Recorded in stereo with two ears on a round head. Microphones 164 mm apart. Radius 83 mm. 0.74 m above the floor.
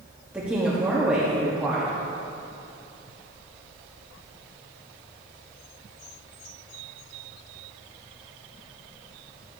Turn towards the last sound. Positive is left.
turn(degrees=-5)  # may be behind; listen again after turning